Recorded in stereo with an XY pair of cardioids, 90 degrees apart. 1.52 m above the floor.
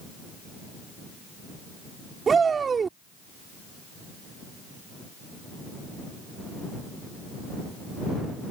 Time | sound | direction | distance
2.3 | a shout | 45° right | ?